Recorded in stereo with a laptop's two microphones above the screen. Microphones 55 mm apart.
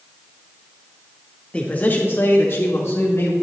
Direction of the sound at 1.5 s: 20° left (ahead or behind).